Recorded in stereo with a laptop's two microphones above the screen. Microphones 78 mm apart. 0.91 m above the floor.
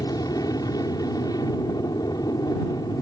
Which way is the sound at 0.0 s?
55° left (ahead or behind).